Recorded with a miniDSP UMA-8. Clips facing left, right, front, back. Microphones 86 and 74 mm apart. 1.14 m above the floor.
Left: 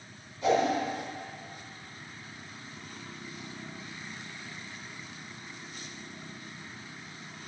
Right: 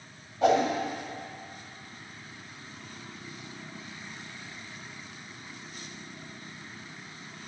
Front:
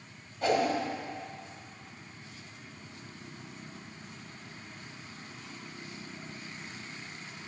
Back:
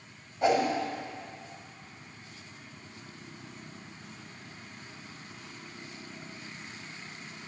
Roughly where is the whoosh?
Right.